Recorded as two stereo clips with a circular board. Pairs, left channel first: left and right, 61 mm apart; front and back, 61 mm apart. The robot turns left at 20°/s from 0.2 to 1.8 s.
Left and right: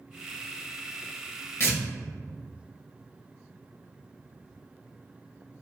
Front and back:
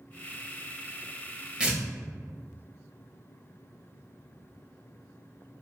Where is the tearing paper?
110° left, 0.8 m.